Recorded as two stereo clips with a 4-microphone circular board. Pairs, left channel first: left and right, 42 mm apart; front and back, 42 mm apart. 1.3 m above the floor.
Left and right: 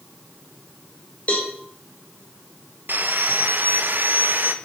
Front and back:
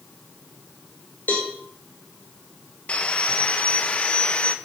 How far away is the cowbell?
About 3.5 m.